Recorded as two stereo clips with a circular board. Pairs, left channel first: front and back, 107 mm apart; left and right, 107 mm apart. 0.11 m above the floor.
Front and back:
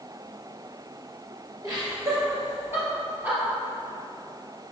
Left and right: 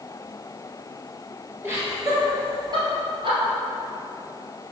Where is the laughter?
145° right, 1.8 m; by 3.4 s 110° right, 2.5 m.